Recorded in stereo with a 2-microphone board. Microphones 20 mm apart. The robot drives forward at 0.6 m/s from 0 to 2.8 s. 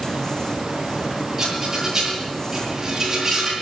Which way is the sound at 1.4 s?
20° right (ahead or behind).